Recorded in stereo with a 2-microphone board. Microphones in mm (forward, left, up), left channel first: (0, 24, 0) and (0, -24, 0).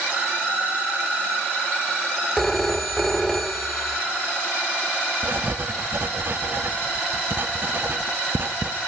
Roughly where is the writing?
Right.